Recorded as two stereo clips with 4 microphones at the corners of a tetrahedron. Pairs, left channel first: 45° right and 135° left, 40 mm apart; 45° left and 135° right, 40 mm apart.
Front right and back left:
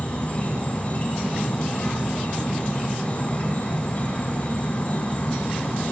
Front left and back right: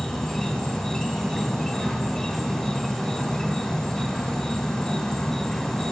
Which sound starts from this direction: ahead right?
An insect, at 0.0 s.